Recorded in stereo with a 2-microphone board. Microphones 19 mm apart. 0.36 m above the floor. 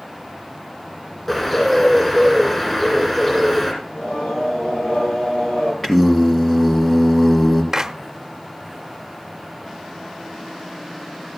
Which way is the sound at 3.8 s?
85° left.